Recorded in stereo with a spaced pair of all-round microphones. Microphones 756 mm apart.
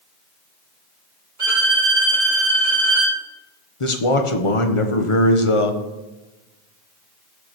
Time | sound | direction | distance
1.4 | a violin | 80° right | 3.5 m
3.8 | a man speaking | 40° left (ahead or behind) | 1.1 m